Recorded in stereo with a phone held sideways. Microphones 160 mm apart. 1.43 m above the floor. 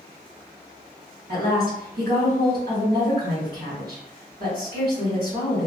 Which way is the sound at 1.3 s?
80° right.